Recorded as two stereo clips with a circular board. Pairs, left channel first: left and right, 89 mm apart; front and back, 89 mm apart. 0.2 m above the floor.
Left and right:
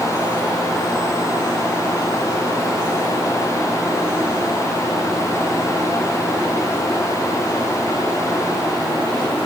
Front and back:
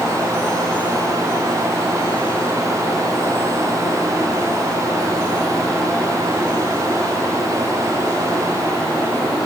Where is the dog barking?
I don't hear a dog barking.